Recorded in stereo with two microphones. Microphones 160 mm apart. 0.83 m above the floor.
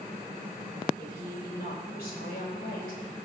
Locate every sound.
1.0 s a woman speaking: 75° left (ahead or behind), 2.5 m